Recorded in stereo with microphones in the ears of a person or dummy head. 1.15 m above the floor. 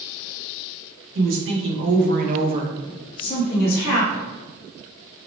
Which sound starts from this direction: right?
A woman speaking, at 1.1 s.